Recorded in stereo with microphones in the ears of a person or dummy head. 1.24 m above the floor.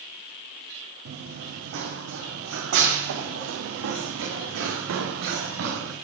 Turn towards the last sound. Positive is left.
turn(degrees=-75)  # may be behind; listen again after turning